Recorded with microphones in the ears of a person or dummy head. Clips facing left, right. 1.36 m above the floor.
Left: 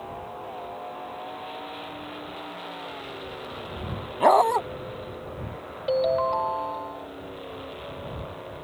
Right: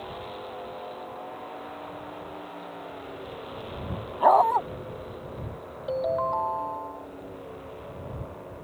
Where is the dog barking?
35° left (ahead or behind).